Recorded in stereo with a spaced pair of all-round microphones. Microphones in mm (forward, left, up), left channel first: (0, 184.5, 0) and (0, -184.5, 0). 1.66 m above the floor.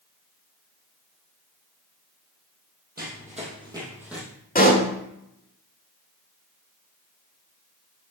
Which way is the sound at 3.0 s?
25° right (ahead or behind).